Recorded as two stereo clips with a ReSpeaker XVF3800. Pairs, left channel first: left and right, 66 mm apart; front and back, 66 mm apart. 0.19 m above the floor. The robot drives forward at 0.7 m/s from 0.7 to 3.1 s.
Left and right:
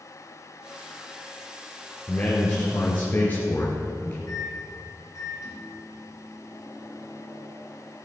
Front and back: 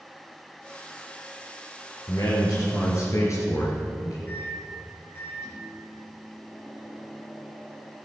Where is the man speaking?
25° left, 3 m; by 4.2 s 30° left, 2.5 m.